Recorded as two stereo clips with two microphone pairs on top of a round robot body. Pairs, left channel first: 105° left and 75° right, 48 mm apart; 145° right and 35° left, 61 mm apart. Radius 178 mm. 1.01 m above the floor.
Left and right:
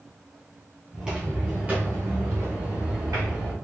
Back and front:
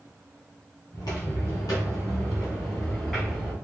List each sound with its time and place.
0.9 s footsteps: 160° right, 1.9 m; by 3.5 s 45° right, 1.4 m